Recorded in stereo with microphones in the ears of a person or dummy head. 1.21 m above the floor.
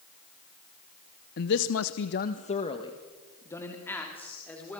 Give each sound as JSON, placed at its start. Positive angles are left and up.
{"t": 1.4, "sound": "a man speaking", "side_deg": 55, "distance_m": 1.0}